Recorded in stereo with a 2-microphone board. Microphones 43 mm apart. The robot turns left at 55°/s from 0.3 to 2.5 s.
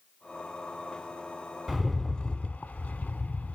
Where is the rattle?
175° right, 0.5 m; by 3.6 s 140° left, 0.5 m.